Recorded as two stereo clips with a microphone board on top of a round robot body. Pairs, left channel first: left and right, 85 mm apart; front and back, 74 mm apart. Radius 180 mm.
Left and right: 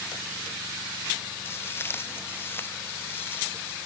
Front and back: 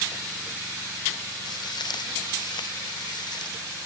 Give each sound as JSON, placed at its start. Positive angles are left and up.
{"t": 1.4, "sound": "footsteps", "azimuth_deg": 25}